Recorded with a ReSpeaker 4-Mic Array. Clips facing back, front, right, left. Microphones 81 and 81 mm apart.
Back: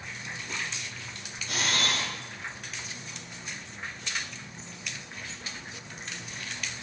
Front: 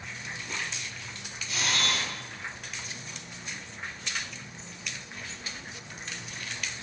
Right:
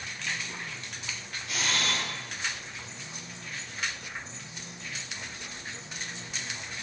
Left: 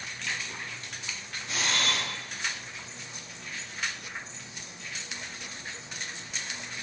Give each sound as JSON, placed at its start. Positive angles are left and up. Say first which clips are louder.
{"t": 1.5, "sound": "a camera shutter", "louder": "back 1 dB, left 1 dB", "azimuth_deg": 150, "distance_m": 6.5}